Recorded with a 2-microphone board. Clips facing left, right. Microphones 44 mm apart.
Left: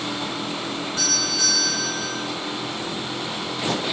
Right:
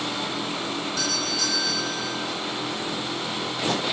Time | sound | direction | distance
1.0 | a doorbell | 30° left (ahead or behind) | 2.5 m